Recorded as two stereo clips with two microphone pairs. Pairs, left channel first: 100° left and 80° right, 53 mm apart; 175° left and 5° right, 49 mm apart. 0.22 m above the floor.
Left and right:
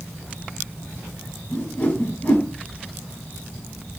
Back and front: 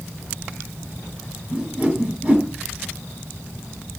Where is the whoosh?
50° left, 0.8 m.